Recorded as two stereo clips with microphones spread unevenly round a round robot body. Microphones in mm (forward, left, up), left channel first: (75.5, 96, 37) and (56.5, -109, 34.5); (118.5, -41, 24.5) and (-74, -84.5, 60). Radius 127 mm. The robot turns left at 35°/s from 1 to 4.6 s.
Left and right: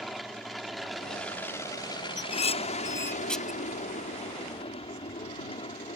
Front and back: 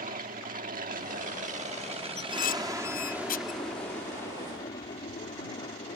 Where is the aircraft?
175° left; by 6.0 s 50° left.